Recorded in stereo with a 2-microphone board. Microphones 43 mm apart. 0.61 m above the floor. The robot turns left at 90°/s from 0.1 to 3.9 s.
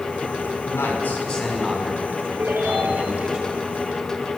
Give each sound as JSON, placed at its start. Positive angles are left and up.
{"t": 0.7, "sound": "a man speaking", "azimuth_deg": 75, "distance_m": 6.5}
{"t": 2.4, "sound": "a ringtone", "azimuth_deg": -80, "distance_m": 7.0}